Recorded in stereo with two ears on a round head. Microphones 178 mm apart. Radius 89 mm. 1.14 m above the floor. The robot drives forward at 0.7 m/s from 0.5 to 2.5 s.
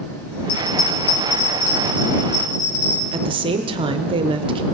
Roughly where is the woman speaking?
Right.